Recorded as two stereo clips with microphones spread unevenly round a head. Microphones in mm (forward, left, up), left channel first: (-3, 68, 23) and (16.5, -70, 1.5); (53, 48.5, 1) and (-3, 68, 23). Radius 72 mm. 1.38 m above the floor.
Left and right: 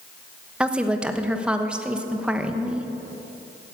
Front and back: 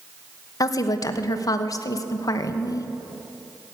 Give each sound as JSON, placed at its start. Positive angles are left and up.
{"t": 0.6, "sound": "a woman speaking", "azimuth_deg": 5, "distance_m": 1.1}